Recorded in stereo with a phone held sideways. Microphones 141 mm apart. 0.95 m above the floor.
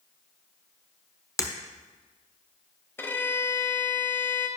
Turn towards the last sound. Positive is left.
turn(degrees=15)  # may be behind; listen again after turning